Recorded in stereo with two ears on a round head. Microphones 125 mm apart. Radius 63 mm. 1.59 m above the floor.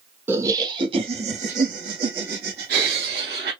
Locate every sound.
0.3 s laughter: 15° right (ahead or behind), 1.2 m; by 3.5 s 80° right, 2.5 m